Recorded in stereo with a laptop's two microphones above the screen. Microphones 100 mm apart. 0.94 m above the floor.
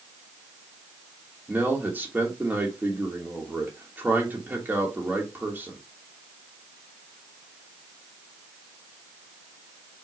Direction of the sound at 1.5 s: 20° right (ahead or behind).